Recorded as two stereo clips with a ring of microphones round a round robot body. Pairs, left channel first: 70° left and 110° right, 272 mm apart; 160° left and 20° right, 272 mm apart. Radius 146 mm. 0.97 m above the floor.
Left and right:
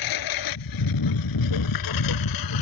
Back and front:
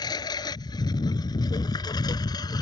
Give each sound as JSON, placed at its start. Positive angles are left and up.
{"t": 0.0, "sound": "a lawn mower", "azimuth_deg": 80}